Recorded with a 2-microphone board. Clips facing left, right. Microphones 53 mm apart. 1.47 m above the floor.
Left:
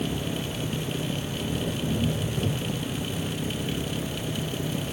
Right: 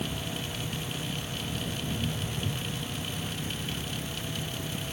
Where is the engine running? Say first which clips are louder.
Left 5 dB; 65° left (ahead or behind).